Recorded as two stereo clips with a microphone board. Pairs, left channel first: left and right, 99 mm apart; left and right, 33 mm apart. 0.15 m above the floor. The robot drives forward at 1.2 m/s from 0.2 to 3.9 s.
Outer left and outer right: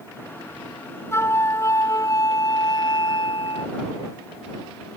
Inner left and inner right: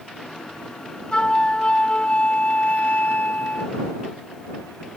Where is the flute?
25° left (ahead or behind); by 3.8 s 65° left (ahead or behind).